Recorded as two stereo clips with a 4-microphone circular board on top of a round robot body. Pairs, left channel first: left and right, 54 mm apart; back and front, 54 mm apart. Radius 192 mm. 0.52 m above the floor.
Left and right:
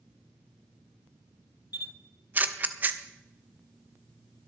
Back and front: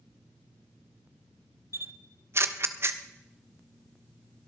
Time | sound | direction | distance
1.7 | a camera shutter | 35° right | 1.2 m